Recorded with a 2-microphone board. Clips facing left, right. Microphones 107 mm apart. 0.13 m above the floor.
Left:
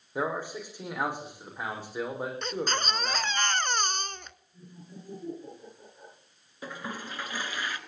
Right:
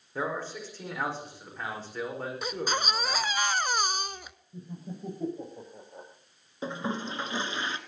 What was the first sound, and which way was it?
A man speaking, 15° left (ahead or behind).